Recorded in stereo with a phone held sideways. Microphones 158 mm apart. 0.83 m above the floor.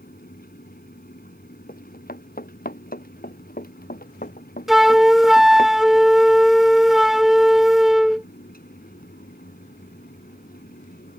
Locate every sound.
0.0 s a fan: 85° left
1.7 s running footsteps: 80° left; by 5.7 s 75° left (ahead or behind)
4.7 s a flute: centre (ahead or behind)